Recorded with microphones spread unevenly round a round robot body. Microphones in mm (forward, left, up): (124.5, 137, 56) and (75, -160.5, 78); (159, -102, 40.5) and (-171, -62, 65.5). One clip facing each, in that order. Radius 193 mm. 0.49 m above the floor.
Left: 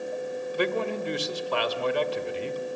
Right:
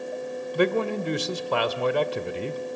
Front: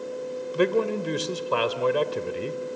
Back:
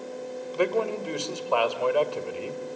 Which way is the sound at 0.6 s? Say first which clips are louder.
Right 5 dB, front 3 dB; 70° right.